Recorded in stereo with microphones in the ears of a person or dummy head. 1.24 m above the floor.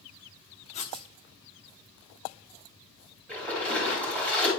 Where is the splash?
15° left (ahead or behind), 3.5 m.